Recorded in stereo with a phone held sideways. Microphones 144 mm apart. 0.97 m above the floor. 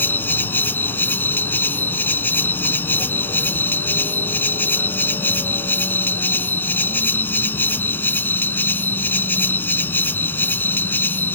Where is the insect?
15° left (ahead or behind).